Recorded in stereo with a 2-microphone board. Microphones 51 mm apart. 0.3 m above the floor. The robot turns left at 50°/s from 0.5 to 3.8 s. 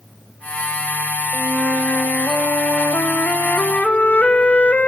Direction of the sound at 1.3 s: 160° left.